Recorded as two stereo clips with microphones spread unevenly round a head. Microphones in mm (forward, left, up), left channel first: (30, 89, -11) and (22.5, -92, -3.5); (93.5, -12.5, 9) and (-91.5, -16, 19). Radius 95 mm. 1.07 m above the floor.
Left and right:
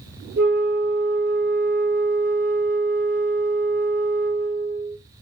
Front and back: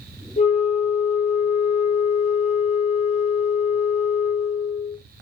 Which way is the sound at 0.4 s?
55° right.